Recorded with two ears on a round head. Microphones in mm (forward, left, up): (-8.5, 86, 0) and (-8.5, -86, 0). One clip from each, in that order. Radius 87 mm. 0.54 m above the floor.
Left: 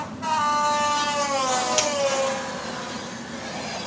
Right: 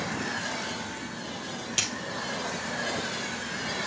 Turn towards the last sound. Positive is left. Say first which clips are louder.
# left 1 dB
turn(degrees=10)  # may be behind; listen again after turning